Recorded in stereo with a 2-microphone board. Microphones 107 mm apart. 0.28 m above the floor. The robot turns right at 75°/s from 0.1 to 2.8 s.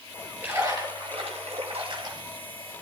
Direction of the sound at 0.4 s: 165° right.